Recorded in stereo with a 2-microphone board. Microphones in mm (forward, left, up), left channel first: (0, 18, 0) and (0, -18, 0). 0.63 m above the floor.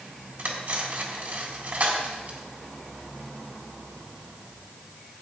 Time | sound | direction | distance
0.4 | cutlery clinking | 45° right (ahead or behind) | 3 m